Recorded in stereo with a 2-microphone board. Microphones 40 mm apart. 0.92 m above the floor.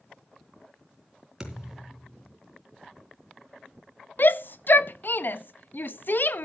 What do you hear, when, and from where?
1.4 s a thud: 10° right (ahead or behind), 3 m
4.2 s a shout: 55° left (ahead or behind), 0.8 m